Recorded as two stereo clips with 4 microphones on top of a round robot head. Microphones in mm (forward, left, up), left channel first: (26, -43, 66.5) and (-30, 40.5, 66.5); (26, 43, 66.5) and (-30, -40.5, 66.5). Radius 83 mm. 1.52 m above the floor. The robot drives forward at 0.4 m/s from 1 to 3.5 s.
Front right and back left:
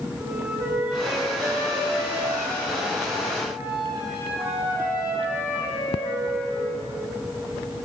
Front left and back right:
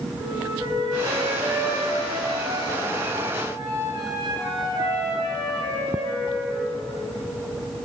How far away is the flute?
About 10 m.